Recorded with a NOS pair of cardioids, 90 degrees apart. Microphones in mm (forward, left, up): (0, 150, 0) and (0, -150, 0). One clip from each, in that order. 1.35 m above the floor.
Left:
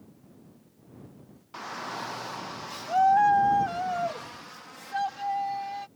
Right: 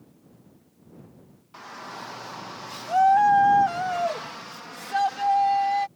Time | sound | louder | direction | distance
1.5 | a shout | left 3 dB | 30° left | ?